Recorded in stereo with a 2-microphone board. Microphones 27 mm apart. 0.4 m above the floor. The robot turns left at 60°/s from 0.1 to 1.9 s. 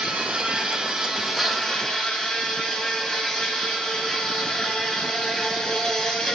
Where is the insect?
105° right, 2.5 m; by 6.4 s 150° left, 2.5 m.